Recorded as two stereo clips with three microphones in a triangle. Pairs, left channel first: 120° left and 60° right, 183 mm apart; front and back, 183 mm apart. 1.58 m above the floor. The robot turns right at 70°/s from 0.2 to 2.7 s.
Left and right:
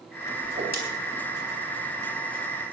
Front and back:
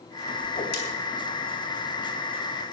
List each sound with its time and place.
0.4 s a whoosh: 50° right, 4 m; by 0.8 s 25° right, 4 m